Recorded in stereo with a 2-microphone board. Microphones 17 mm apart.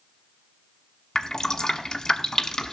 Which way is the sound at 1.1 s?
35° left (ahead or behind).